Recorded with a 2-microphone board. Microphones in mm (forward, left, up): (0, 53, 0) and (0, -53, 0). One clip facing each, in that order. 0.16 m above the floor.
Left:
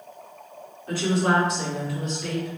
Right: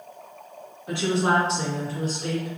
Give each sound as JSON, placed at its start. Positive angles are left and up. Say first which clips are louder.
{"t": 0.9, "sound": "a woman speaking", "louder": "even", "side_deg": -15, "distance_m": 1.8}